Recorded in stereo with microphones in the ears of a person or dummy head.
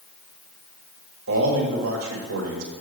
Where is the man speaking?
85° right, 1.8 m.